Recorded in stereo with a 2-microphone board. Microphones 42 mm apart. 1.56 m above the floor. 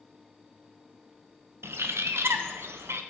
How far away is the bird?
About 0.7 m.